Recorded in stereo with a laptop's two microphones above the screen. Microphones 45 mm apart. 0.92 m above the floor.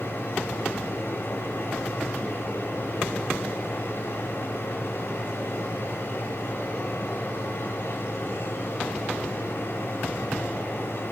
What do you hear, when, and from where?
0.0 s a machine running: 65° left (ahead or behind), 1.6 m